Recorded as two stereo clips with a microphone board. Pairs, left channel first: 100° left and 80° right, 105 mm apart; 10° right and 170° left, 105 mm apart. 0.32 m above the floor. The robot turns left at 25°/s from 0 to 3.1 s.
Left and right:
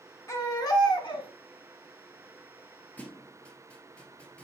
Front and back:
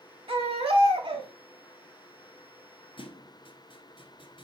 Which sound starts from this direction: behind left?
A baby crying, at 0.3 s.